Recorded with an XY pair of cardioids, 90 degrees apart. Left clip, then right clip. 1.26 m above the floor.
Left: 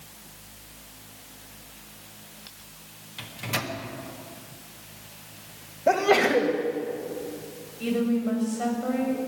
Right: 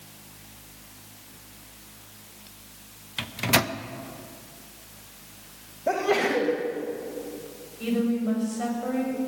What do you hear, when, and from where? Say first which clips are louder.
3.2 s a microwave: right 7 dB; 70° right, 0.8 m
5.9 s a sneeze: left 3 dB; 25° left, 1.7 m
7.8 s a woman speaking: left 1 dB; 5° right, 7.5 m